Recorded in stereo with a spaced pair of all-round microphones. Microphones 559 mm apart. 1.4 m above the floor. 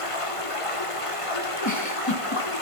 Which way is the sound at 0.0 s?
65° left (ahead or behind).